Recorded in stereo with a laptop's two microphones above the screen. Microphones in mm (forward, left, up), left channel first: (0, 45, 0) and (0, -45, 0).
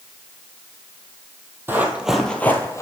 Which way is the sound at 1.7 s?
25° right (ahead or behind).